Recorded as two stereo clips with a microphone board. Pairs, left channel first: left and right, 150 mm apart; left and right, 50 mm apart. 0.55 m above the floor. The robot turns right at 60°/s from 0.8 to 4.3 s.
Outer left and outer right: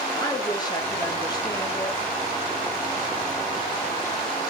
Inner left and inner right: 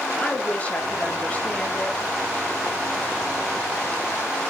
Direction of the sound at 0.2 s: 25° left (ahead or behind).